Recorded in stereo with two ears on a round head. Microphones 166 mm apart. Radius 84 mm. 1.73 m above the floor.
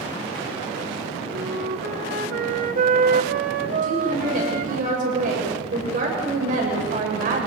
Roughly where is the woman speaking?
Right.